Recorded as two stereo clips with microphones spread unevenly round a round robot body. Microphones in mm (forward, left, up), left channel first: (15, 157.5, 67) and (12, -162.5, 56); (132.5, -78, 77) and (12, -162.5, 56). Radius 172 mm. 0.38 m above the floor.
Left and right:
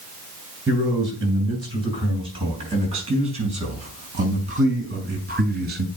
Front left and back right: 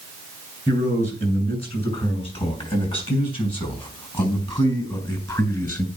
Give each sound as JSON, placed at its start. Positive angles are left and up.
{"t": 0.7, "sound": "a man speaking", "azimuth_deg": -15, "distance_m": 7.0}